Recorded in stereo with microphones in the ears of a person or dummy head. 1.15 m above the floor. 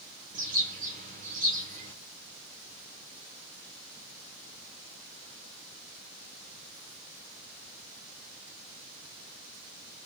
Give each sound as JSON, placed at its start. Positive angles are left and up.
{"t": 0.3, "sound": "a bird", "side_deg": -35, "distance_m": 0.8}